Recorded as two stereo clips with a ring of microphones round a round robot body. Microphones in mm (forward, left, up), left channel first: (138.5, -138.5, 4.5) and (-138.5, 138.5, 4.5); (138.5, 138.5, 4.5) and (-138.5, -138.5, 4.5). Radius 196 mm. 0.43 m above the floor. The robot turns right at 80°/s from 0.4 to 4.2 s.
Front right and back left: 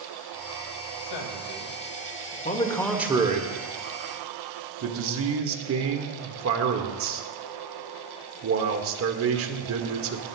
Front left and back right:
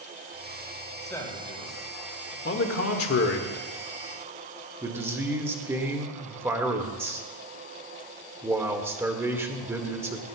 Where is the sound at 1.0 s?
45° right, 2.5 m; by 2.4 s 60° left, 2.5 m.